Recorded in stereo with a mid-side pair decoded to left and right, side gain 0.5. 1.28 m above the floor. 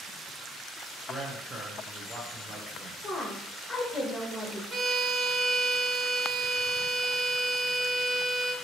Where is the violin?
30° right, 1.1 m.